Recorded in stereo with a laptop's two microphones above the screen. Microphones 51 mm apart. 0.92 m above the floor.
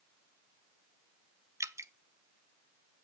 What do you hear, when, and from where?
1.6 s dripping: 70° right (ahead or behind), 0.5 m